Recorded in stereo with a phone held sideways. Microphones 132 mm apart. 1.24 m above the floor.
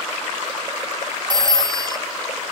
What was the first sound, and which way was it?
A phone ringing, 35° right (ahead or behind).